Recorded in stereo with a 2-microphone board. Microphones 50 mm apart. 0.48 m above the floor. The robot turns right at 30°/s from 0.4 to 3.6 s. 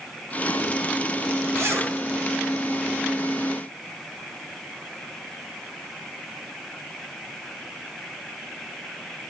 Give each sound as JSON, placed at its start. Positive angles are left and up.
{"t": 1.6, "sound": "a zipper", "side_deg": -65, "distance_m": 2.0}